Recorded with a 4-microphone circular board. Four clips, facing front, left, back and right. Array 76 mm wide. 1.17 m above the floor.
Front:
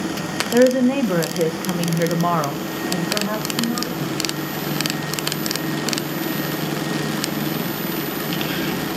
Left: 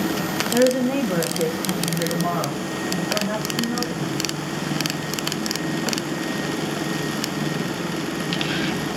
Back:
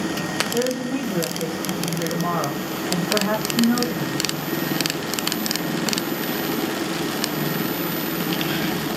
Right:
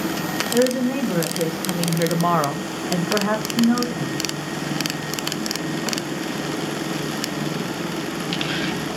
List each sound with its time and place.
0.5 s a woman speaking: 15° left, 1.3 m; by 4.2 s 125° right, 1.4 m